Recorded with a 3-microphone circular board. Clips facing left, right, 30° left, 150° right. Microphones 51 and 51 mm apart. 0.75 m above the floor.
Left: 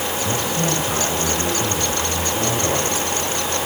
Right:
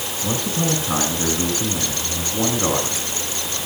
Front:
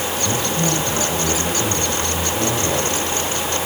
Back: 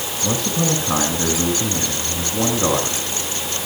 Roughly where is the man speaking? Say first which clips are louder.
Right 2 dB, back 2 dB; behind right.